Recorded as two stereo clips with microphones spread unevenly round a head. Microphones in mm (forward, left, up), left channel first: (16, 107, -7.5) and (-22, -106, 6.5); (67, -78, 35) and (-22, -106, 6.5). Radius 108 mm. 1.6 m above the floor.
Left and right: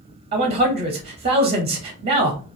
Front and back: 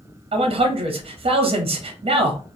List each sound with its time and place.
0.3 s a man speaking: 165° right, 0.5 m